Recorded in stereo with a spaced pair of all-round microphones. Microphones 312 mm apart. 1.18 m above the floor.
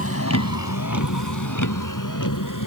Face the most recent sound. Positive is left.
turn(degrees=80)